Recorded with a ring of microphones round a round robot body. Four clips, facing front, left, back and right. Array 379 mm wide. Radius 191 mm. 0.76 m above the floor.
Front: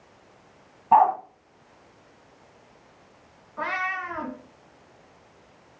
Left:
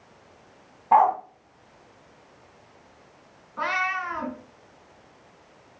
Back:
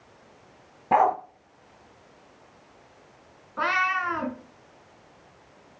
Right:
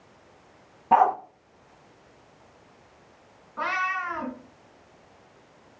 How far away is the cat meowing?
About 3.5 m.